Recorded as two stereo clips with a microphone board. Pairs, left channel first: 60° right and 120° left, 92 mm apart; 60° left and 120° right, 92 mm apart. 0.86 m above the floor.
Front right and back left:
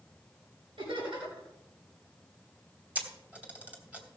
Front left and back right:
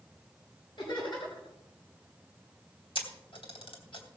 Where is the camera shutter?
45° left, 2.5 m.